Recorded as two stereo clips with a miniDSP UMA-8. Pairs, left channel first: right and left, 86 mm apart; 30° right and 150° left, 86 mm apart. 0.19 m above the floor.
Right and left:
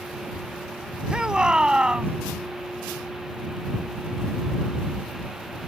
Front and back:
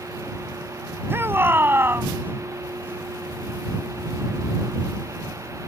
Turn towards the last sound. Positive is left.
turn(degrees=155)